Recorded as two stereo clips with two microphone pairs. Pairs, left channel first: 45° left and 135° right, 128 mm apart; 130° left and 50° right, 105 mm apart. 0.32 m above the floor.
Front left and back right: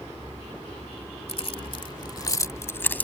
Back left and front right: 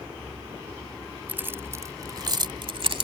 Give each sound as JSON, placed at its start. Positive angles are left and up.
{"t": 1.3, "sound": "keys jangling", "azimuth_deg": 20}